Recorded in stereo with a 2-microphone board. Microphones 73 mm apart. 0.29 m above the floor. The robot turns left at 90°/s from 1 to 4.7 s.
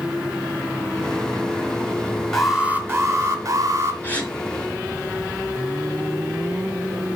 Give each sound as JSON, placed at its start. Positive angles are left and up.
{"t": 2.3, "sound": "an alarm", "azimuth_deg": 10, "distance_m": 1.4}
{"t": 4.0, "sound": "a gasp", "side_deg": 30, "distance_m": 1.7}